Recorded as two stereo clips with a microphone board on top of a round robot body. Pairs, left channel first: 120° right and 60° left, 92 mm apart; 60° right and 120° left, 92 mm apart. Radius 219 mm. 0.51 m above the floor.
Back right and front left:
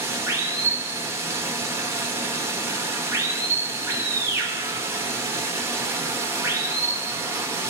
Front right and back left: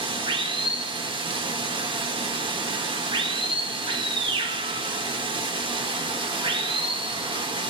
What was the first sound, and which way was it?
Running water, 115° left.